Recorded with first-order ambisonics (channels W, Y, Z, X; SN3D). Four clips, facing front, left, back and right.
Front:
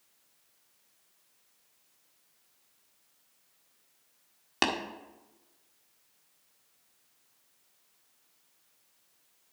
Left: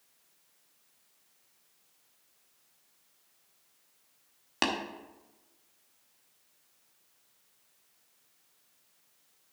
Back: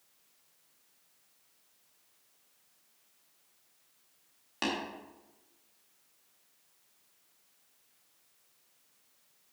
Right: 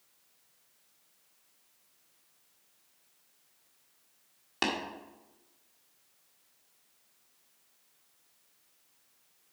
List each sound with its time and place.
4.6 s tapping: 25° left, 1.0 m